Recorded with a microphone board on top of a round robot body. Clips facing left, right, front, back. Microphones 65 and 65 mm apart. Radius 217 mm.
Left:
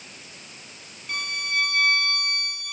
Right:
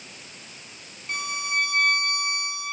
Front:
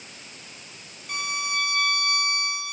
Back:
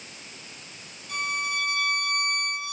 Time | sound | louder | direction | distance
1.1 | a violin | even, even | 25° right | 5.5 m